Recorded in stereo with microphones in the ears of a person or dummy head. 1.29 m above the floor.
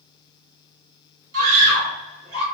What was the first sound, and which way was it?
A scream, 50° right (ahead or behind).